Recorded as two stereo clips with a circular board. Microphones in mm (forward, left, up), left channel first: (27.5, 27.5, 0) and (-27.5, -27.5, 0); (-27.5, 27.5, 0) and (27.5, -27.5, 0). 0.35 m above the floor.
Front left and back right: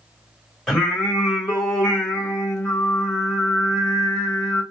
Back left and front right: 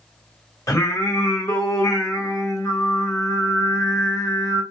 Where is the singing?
130° left, 1.8 m.